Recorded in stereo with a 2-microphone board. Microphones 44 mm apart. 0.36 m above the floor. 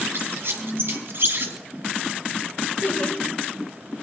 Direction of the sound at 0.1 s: 65° right (ahead or behind).